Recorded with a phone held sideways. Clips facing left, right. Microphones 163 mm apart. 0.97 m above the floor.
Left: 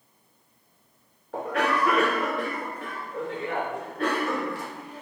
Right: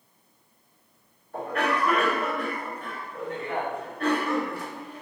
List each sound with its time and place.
1.3 s a cough: 75° left (ahead or behind), 0.8 m